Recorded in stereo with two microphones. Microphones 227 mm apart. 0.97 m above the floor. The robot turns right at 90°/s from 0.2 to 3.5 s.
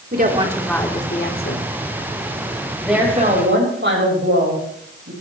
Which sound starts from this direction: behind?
A woman speaking, at 2.8 s.